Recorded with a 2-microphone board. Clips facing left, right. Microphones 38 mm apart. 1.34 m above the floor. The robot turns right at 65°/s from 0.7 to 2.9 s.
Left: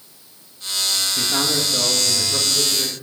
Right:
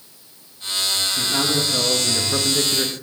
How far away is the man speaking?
About 1.6 m.